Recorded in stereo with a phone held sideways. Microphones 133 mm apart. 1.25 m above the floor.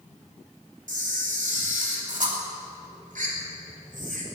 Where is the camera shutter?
75° right (ahead or behind), 2.5 m.